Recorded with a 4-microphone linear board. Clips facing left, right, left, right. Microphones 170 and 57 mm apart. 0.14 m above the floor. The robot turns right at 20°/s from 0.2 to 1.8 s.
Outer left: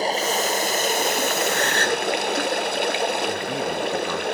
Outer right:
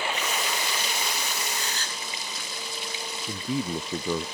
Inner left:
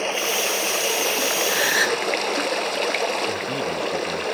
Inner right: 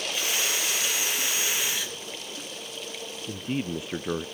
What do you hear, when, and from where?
0.0 s running water: 40° left; by 4.4 s 70° left
1.5 s a gasp: 75° left (ahead or behind); by 2.0 s 70° left (ahead or behind)
3.3 s a man speaking: 25° right (ahead or behind)